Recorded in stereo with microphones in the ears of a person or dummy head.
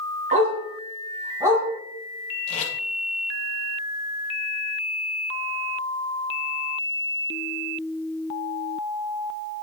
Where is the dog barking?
35° right (ahead or behind), 2.5 m; by 1.7 s 10° right (ahead or behind), 2.5 m.